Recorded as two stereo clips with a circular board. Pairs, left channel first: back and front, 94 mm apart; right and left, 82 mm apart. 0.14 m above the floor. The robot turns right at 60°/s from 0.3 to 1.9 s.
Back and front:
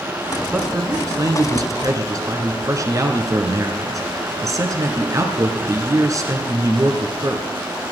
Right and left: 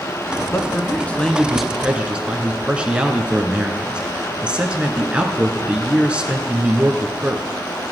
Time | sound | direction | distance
0.5 | a man speaking | 65° right | 1.3 m